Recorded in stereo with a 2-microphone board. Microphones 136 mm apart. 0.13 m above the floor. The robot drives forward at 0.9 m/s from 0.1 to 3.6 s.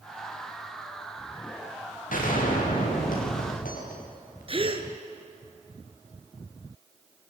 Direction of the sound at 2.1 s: 85° left.